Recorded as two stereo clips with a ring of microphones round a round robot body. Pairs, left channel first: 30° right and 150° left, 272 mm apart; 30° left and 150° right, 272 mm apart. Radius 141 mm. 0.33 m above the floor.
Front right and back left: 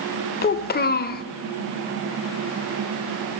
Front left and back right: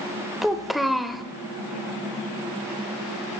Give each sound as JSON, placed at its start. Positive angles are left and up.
{"t": 0.4, "sound": "a child speaking", "azimuth_deg": -60, "distance_m": 0.6}